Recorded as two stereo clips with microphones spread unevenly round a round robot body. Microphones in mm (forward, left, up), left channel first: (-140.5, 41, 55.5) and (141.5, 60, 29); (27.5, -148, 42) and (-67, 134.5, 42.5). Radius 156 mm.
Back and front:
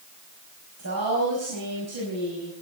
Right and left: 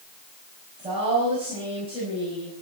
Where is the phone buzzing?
No phone buzzing in this recording.